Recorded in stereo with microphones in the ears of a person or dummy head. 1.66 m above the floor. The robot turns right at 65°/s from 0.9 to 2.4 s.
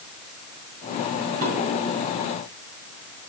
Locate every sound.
1.4 s dishes clattering: 70° right (ahead or behind), 5.5 m; by 1.5 s 60° right (ahead or behind), 5.5 m